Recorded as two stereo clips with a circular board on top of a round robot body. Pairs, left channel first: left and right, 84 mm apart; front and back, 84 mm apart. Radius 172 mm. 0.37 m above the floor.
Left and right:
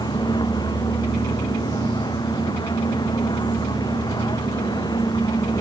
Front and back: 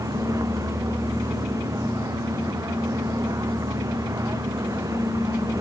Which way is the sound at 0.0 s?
130° left.